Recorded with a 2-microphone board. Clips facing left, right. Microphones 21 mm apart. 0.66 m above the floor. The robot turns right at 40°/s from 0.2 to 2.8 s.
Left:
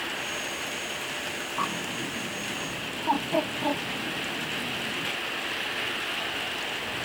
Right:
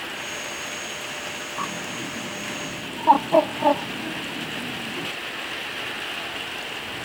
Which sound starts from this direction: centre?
A bird, at 1.6 s.